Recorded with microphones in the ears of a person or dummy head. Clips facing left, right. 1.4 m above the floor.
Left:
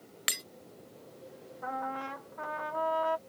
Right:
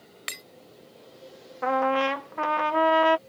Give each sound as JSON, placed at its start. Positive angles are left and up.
{"t": 0.3, "sound": "breaking glass", "side_deg": 10}
{"t": 1.6, "sound": "a trumpet", "side_deg": -70}